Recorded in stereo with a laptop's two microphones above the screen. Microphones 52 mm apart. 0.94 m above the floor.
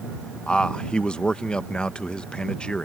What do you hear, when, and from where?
0.5 s a man speaking: 15° left (ahead or behind)